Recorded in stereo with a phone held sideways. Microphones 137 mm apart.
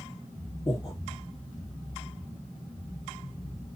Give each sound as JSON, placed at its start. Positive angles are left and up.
{"t": 0.7, "sound": "breathing", "side_deg": 30, "distance_m": 1.2}